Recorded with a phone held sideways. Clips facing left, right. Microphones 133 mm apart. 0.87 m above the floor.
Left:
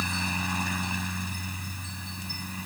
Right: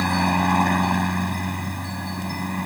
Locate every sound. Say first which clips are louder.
0.0 s a helicopter: right 12 dB; 65° right (ahead or behind)